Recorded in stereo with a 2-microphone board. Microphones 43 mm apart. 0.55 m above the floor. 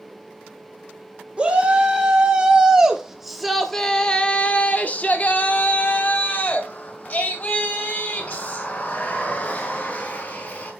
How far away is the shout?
About 2 m.